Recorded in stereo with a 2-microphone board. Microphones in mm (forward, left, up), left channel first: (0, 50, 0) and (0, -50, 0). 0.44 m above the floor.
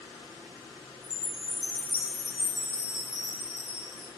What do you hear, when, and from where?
1.0 s a chime: 10° right (ahead or behind), 1.0 m